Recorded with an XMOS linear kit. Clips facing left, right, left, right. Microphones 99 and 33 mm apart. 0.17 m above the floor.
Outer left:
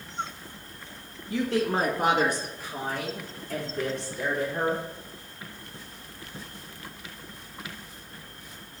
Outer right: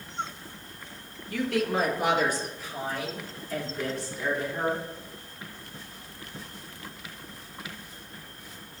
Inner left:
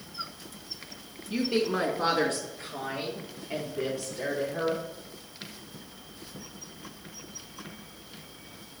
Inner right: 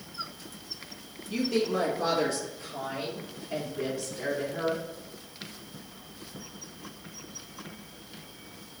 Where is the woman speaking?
25° left (ahead or behind), 1.9 m; by 4.8 s 60° left (ahead or behind), 5.5 m.